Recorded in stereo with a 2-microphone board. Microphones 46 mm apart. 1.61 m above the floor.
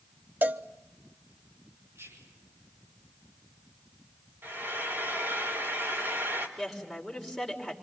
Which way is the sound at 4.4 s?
55° right (ahead or behind).